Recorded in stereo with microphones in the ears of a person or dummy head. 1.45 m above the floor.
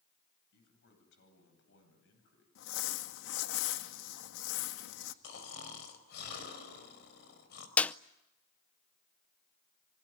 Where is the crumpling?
75° left (ahead or behind), 1.6 m.